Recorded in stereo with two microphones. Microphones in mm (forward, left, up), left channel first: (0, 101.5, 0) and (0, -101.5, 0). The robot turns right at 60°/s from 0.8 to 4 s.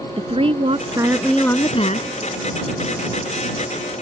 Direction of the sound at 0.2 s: 30° right.